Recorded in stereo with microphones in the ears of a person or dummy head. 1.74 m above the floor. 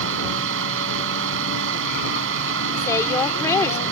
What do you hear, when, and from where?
0.0 s a fan: 75° right (ahead or behind)
2.8 s a woman speaking: 15° left (ahead or behind)